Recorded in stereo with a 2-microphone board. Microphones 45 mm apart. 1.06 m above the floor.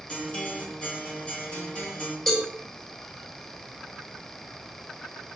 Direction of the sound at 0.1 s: 25° left (ahead or behind).